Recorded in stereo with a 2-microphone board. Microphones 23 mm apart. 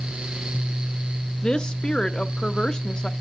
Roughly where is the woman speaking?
Left.